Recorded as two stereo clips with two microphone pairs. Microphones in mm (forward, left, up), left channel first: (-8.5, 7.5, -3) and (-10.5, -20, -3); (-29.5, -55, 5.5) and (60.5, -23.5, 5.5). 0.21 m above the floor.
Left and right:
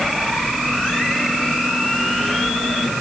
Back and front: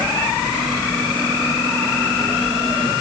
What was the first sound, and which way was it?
Only background noise.